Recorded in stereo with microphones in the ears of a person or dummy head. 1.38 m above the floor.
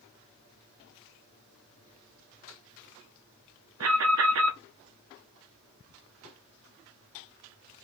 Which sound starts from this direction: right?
An alarm, at 3.8 s.